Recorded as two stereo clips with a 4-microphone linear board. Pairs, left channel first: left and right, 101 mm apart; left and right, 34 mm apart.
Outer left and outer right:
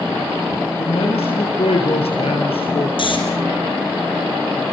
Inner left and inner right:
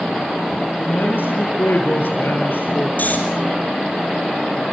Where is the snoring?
55° left (ahead or behind), 5.5 m.